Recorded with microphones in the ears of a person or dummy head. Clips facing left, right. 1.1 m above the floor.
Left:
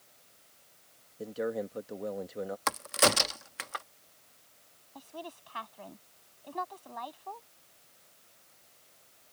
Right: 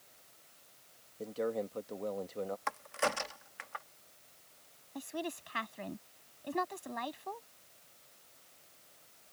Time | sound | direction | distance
1.2 | a man speaking | 15° left (ahead or behind) | ?
2.7 | a crack | 45° left (ahead or behind) | ?
5.0 | a woman speaking | 25° right (ahead or behind) | ?